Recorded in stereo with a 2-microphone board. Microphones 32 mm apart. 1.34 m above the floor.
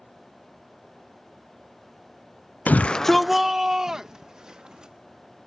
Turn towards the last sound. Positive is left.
turn(degrees=-25)  # may be behind; listen again after turning